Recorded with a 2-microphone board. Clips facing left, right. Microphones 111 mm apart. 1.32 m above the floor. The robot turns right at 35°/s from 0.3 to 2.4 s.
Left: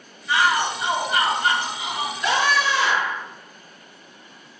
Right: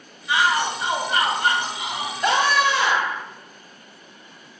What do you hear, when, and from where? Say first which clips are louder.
0.3 s a shout: even; 165° right, 1.5 m; by 2.1 s 100° right, 1.5 m
2.2 s a scream: right 2 dB; 50° right (ahead or behind), 1.0 m; by 3.2 s 55° right (ahead or behind), 1.0 m